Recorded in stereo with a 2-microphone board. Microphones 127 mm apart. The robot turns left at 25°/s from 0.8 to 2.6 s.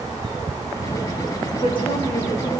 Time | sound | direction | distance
1.6 | a woman speaking | 45° left (ahead or behind) | 7.5 m